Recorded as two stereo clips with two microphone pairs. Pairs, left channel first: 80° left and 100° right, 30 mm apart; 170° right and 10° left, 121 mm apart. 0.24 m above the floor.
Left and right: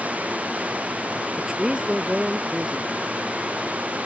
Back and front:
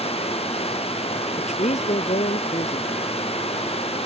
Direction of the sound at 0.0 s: 135° right.